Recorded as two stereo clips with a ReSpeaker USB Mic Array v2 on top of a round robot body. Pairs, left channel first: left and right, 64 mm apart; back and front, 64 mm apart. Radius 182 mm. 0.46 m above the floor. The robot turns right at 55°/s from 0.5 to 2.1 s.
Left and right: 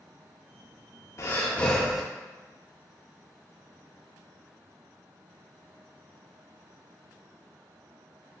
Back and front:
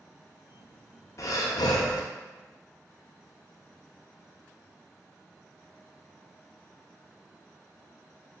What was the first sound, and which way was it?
Breathing, 140° left.